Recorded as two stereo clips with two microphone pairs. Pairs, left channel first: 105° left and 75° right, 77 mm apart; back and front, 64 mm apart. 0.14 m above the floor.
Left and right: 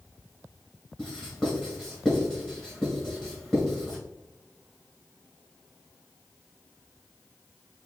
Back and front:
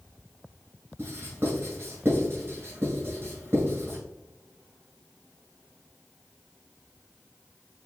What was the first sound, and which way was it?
Writing, 30° left.